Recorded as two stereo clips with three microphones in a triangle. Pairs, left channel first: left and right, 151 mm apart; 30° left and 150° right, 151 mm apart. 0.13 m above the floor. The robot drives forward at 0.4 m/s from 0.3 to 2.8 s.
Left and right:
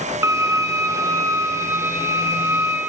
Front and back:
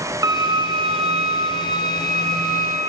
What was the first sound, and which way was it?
A violin, 130° right.